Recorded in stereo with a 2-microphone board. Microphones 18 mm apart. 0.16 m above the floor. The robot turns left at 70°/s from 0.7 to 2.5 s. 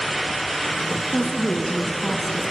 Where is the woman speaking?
105° left, 1.6 m; by 2.4 s 15° left, 1.6 m.